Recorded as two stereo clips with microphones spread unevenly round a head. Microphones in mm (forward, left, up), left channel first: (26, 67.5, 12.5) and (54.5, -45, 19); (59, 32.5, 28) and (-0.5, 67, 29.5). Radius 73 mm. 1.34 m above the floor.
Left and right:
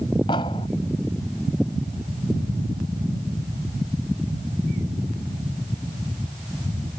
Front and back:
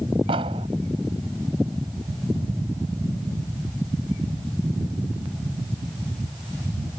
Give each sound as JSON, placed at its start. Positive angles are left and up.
{"t": 0.3, "sound": "an explosion", "azimuth_deg": 170}